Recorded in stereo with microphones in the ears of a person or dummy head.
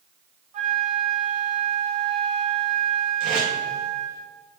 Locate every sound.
0.5 s a flute: 35° right (ahead or behind), 1.1 m
3.2 s tape being pulled: 55° right (ahead or behind), 3 m